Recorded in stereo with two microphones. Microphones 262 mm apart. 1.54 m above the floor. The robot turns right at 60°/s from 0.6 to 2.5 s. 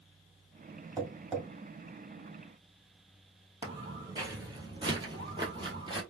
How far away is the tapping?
About 1.9 m.